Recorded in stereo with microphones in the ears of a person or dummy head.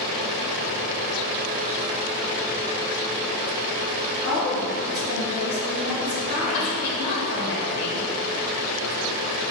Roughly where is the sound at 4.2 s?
Left.